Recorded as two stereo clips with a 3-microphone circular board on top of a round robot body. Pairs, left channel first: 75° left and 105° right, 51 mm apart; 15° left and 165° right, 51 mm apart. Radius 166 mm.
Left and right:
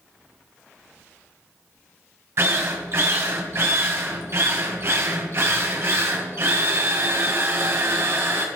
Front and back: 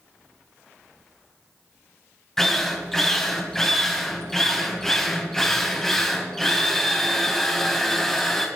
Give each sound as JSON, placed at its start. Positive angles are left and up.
{"t": 2.4, "sound": "a drill", "azimuth_deg": -65, "distance_m": 2.0}